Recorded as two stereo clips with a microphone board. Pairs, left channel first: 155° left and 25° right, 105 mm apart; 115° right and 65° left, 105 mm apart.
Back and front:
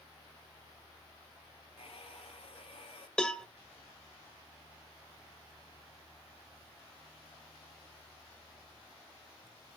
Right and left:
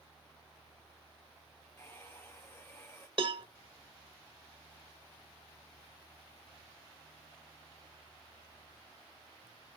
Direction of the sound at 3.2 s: 75° left.